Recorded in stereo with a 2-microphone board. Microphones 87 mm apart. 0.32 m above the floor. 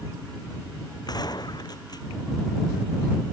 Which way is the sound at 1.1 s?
50° left (ahead or behind).